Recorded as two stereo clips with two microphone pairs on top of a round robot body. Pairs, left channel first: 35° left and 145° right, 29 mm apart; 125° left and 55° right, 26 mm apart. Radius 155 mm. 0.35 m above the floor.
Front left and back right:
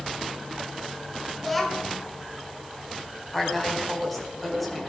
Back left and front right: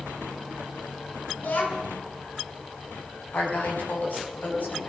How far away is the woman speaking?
About 4.5 m.